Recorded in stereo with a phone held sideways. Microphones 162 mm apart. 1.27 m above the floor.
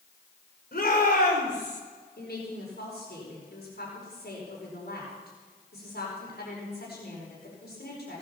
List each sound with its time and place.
0.7 s a shout: 70° left (ahead or behind), 4 m; by 1.8 s 85° left, 3 m
2.2 s a woman speaking: 85° left, 4.5 m